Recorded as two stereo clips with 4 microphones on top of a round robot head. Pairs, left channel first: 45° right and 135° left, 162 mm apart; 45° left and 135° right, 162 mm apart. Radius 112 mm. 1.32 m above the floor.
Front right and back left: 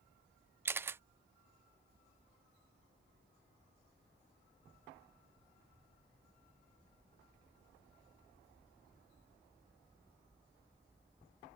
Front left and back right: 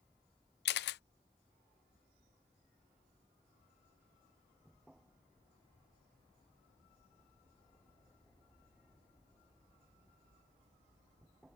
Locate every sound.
0.7 s a camera shutter: 60° left